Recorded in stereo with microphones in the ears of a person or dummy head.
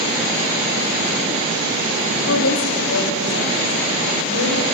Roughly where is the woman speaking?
Left.